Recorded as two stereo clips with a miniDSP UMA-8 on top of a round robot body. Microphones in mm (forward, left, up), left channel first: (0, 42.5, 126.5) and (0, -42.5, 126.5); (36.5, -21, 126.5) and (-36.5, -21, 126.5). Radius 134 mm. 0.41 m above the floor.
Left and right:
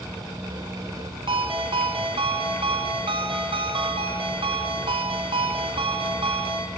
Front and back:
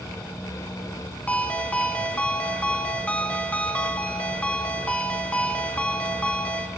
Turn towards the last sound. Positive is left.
turn(degrees=-75)